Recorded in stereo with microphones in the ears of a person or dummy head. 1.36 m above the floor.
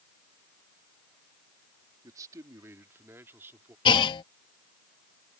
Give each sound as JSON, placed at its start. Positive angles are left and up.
{"t": 2.0, "sound": "a man speaking", "side_deg": -20}
{"t": 3.9, "sound": "a clunk", "side_deg": 30}